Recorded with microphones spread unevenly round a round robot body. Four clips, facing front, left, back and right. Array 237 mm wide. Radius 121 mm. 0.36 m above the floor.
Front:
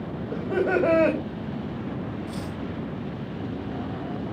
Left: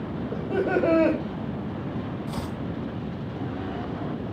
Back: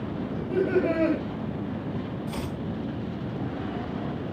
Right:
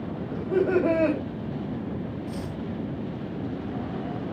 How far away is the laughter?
About 2.5 m.